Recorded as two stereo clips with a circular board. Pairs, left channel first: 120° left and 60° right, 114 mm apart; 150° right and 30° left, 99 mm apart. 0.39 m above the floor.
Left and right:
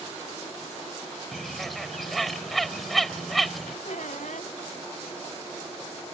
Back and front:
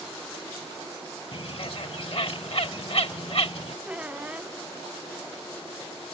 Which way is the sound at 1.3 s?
150° right.